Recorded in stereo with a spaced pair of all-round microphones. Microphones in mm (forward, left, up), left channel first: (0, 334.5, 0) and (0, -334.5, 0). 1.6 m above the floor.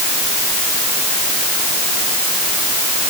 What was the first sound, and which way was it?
Only background noise.